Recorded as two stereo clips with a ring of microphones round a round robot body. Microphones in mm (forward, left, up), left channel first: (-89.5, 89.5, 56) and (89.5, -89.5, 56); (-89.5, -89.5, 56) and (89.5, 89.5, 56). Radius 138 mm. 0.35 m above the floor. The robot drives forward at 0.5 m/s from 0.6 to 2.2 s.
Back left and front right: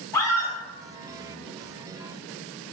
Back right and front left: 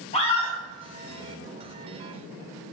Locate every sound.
0.1 s a scream: 160° right, 0.9 m